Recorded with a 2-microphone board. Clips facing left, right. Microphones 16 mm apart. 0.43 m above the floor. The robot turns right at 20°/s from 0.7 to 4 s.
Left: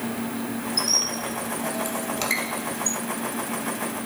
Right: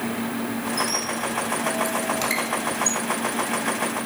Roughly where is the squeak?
Left.